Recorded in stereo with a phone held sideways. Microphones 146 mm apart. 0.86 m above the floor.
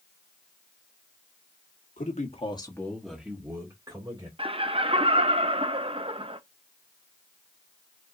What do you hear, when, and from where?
2.0 s a man speaking: 65° left (ahead or behind), 1.5 m; by 4.3 s 30° right (ahead or behind), 3 m
4.4 s laughter: 40° right (ahead or behind), 0.5 m